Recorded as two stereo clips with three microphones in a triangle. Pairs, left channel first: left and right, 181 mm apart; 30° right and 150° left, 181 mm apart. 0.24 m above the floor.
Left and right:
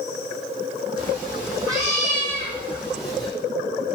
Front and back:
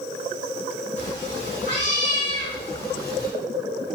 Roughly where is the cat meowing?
Ahead right.